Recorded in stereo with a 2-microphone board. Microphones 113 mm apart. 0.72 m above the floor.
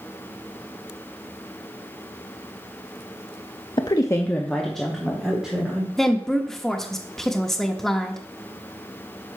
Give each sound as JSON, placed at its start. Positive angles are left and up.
{"t": 3.8, "sound": "a woman speaking", "side_deg": 40, "distance_m": 0.6}
{"t": 6.0, "sound": "a woman speaking", "side_deg": 5, "distance_m": 0.7}